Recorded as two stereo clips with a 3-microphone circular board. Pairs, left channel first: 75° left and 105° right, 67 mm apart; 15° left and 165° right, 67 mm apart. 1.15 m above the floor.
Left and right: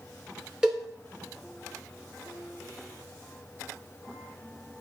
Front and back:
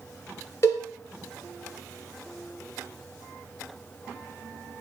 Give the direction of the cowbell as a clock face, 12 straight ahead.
1 o'clock.